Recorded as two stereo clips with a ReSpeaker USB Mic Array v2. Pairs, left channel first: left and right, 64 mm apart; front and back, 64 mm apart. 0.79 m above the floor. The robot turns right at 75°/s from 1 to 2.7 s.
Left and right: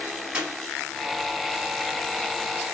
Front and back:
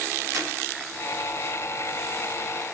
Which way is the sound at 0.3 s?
160° right.